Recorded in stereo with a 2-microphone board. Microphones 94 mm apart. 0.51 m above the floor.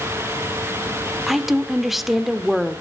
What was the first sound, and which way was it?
A woman speaking, centre (ahead or behind).